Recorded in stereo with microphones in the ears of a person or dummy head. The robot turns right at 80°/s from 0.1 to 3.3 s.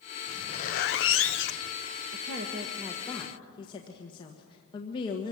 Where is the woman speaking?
65° right, 1.4 m; by 5.3 s 30° left, 1.4 m.